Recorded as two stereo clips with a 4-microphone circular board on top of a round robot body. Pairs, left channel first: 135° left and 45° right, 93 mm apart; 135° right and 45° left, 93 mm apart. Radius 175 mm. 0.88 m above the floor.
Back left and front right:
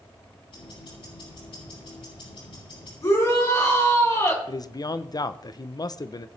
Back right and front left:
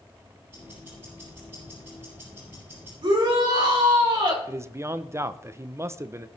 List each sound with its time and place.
0.5 s ticking: 110° left, 7.5 m
3.0 s a shout: 85° left, 3.5 m
4.5 s a man speaking: 100° left, 0.7 m